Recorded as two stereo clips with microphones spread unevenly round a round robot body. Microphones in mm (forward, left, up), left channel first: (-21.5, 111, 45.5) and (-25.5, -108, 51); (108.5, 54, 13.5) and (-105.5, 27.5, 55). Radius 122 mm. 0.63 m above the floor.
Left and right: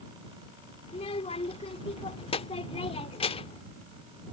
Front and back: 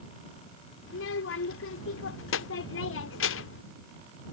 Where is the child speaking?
25° left.